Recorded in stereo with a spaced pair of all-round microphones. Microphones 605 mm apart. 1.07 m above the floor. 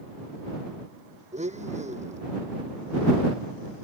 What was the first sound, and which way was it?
A blender, 10° right (ahead or behind).